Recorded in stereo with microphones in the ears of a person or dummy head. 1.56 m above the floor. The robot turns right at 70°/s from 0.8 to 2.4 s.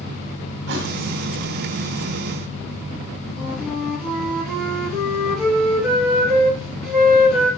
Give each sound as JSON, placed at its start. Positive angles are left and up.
{"t": 0.7, "sound": "a thud", "side_deg": -65, "distance_m": 2.0}
{"t": 3.4, "sound": "a flute", "side_deg": 0, "distance_m": 5.5}